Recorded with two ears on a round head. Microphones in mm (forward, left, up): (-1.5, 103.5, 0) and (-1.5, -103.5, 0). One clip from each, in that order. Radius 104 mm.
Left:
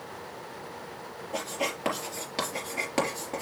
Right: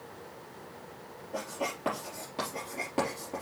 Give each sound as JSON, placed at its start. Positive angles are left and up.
{"t": 1.3, "sound": "writing", "side_deg": 60, "distance_m": 4.0}